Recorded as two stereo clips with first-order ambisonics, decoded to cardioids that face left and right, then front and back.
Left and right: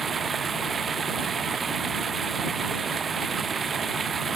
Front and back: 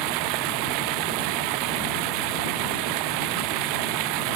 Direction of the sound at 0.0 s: 165° right.